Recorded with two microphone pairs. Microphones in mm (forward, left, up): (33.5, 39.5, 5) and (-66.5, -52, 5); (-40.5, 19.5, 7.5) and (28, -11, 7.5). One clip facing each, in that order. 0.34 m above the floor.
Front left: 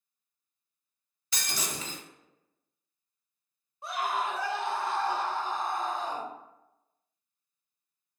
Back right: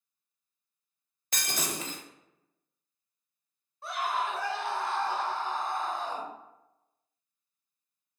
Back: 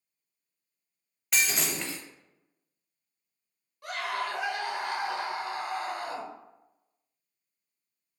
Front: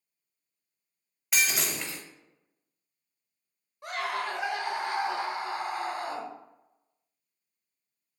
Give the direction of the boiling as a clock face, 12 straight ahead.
I don't hear boiling.